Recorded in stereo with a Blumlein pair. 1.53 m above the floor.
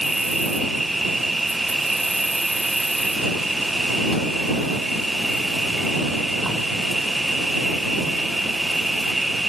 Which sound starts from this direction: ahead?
An insect, at 0.0 s.